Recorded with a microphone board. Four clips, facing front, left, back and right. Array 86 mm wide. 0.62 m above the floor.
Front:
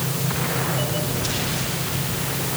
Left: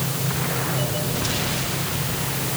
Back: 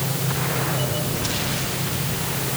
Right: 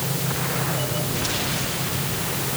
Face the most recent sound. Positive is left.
No sound to turn to.